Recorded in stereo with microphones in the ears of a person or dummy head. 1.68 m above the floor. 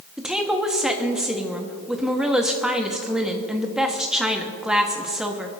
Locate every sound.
0.2 s a woman speaking: 5° right (ahead or behind), 1.1 m